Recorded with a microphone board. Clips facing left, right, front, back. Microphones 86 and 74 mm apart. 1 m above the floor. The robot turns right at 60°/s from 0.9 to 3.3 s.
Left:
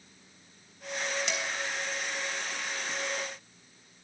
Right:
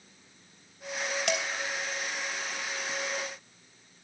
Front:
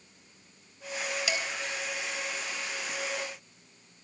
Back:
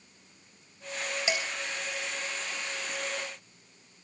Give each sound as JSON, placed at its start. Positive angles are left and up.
{"t": 1.3, "sound": "dishes clattering", "azimuth_deg": -115, "distance_m": 3.5}